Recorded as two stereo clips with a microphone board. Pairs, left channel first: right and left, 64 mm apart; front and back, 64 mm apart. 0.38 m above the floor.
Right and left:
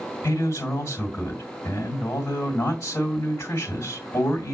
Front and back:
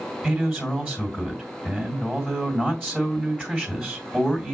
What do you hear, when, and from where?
0.2 s a man speaking: 115° right, 2.0 m